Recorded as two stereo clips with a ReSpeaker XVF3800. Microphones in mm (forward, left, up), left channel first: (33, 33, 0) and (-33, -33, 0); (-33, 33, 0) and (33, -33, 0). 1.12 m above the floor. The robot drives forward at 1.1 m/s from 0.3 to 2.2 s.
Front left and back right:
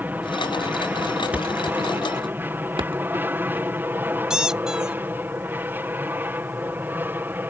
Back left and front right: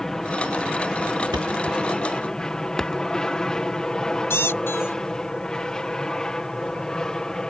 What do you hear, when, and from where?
0.0 s an aircraft: 150° right; by 7.5 s 155° right
1.3 s a thud: 65° right; by 3.7 s 145° right
4.3 s a squeak: 150° left